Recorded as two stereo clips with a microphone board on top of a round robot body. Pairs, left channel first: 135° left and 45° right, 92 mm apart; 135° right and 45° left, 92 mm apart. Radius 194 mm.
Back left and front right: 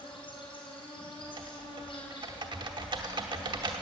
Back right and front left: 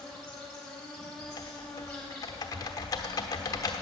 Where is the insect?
140° left, 4 m.